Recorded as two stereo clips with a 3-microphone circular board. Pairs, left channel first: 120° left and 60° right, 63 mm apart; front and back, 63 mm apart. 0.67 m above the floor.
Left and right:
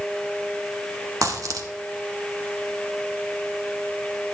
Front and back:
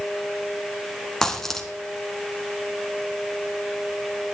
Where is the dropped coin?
85° right, 1.6 m.